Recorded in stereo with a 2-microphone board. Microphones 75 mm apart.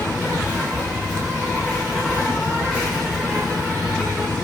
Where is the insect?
10° right (ahead or behind), 9.5 m.